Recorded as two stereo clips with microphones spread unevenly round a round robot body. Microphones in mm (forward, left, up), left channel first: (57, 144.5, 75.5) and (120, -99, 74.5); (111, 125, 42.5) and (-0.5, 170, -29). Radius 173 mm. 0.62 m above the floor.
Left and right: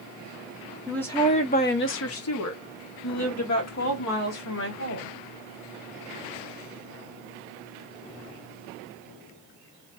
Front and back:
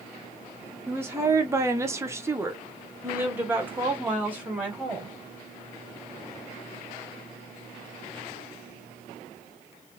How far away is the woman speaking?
About 0.8 m.